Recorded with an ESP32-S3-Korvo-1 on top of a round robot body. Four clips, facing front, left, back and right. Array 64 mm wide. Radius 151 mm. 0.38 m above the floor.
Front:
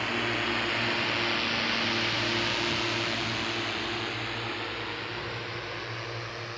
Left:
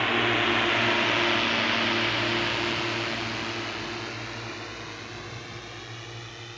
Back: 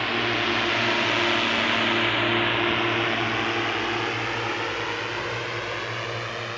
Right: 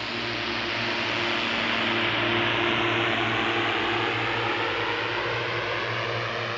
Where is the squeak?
I don't hear a squeak.